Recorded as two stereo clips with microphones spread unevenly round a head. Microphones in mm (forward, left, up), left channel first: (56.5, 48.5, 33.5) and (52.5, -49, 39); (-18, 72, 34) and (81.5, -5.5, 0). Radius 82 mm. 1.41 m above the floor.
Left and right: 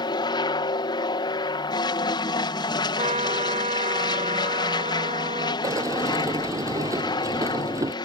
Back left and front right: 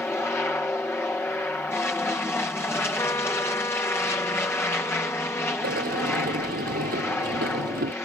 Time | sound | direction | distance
0.0 | an aircraft | 65° left | ?
3.0 | a trumpet | 145° right | ?
5.6 | a sliding door | 35° right | ?